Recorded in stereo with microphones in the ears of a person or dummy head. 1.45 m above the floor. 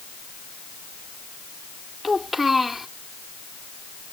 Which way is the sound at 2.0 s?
Centre (ahead or behind).